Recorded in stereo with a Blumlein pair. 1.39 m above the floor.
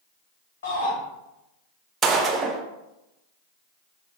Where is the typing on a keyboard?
I don't hear typing on a keyboard.